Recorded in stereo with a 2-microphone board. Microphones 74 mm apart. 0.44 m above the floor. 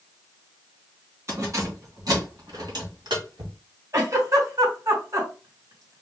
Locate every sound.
1.3 s keys jangling: 40° right (ahead or behind), 2.5 m; by 3.5 s 70° right (ahead or behind), 2.0 m
3.9 s a giggle: 45° right (ahead or behind), 3.5 m